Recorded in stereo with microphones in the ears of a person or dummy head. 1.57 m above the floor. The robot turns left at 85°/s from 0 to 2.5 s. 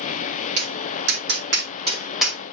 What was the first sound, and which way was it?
Tapping, 40° right (ahead or behind).